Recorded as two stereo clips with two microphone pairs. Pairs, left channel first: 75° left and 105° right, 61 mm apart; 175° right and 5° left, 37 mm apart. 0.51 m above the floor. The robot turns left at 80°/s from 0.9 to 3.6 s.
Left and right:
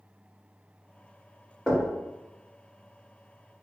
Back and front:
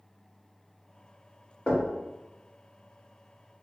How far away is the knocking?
About 0.8 m.